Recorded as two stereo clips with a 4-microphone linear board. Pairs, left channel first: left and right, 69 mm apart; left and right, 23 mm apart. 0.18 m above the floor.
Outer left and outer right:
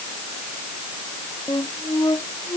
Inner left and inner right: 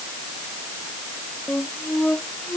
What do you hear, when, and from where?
1.5 s a flute: 75° left (ahead or behind)